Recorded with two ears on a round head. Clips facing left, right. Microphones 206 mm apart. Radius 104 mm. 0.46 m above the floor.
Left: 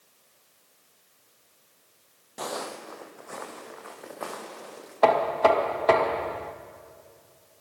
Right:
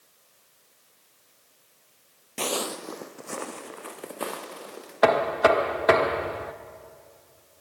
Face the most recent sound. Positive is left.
turn(degrees=-20)  # may be behind; listen again after turning